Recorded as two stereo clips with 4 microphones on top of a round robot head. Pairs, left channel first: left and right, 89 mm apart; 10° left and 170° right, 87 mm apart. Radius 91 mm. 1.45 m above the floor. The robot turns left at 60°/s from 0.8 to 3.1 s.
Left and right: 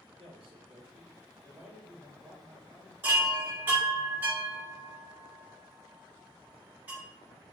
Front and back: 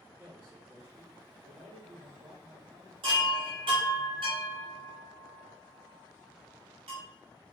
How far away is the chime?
About 1.2 m.